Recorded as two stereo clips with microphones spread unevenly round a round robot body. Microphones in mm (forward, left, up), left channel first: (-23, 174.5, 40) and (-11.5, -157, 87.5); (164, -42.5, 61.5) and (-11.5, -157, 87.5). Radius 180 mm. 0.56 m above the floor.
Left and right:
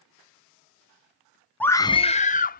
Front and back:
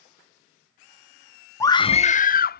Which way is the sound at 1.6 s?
40° left.